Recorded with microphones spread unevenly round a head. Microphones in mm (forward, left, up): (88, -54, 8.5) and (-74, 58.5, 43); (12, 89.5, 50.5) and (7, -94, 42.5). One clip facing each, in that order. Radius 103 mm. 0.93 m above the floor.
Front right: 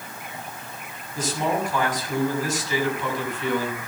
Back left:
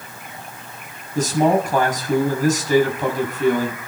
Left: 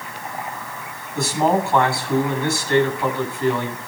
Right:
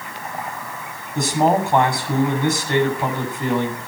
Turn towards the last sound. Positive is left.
turn(degrees=-165)